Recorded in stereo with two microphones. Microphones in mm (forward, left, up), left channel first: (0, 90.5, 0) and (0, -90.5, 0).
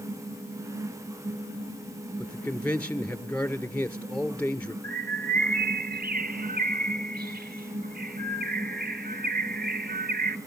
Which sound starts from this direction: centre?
A man speaking, at 2.2 s.